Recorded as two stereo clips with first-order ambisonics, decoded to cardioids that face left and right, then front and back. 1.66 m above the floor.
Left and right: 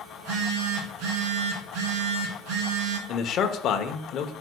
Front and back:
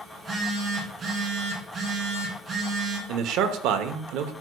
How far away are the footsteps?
I don't hear footsteps.